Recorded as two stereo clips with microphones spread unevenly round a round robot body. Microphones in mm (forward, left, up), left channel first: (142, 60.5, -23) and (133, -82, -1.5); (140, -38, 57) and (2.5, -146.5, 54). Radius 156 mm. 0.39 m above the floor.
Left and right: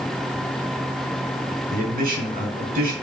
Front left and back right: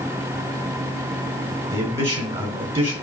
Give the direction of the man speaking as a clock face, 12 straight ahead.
3 o'clock.